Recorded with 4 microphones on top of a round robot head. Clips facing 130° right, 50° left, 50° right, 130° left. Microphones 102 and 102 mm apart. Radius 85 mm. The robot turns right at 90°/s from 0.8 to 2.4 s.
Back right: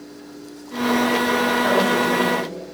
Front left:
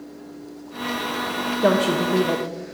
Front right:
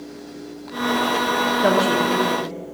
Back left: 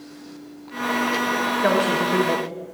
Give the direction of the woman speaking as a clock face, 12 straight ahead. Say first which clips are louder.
Front left 4 dB, front right 2 dB; 11 o'clock.